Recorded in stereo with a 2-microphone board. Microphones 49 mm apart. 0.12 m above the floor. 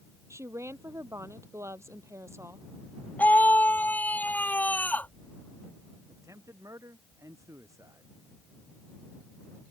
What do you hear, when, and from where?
0.3 s a woman speaking: 65° right (ahead or behind)
3.2 s a scream: 35° left (ahead or behind)
6.1 s a man speaking: 80° right